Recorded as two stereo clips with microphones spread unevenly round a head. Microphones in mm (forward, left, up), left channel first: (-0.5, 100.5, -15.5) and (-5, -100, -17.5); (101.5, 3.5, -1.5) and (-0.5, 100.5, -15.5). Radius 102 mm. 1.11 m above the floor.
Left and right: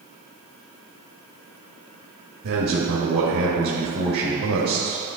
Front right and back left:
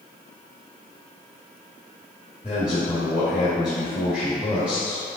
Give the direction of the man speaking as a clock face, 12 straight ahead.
4 o'clock.